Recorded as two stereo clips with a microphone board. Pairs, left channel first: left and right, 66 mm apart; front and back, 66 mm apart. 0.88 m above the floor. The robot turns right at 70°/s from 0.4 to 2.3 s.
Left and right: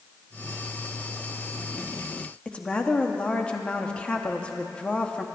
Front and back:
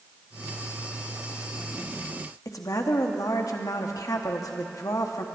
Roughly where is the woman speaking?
Ahead.